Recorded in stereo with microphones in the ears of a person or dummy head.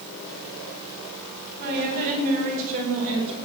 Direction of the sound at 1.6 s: 60° right (ahead or behind).